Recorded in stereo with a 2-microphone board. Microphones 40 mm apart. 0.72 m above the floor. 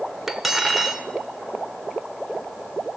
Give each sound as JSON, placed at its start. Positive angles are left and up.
{"t": 0.3, "sound": "cutlery clinking", "side_deg": -5, "distance_m": 1.2}